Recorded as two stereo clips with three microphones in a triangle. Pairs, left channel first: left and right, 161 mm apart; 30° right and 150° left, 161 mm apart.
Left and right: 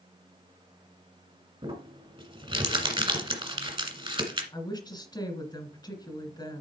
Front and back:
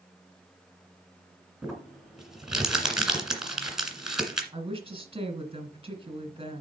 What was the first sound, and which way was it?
Crumpling, 125° right.